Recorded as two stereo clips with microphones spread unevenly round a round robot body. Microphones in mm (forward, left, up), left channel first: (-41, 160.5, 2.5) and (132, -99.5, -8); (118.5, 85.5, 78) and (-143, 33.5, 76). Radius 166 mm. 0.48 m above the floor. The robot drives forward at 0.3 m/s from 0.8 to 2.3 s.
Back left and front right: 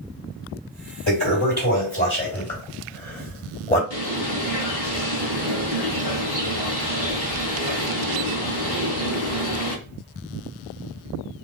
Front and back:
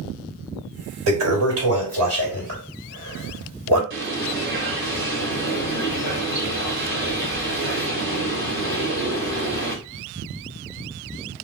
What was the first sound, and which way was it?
A toilet flushing, straight behind.